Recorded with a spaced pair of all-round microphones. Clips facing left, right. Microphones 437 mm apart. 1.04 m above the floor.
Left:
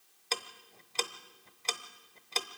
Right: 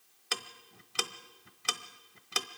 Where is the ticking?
30° right (ahead or behind), 1.0 m.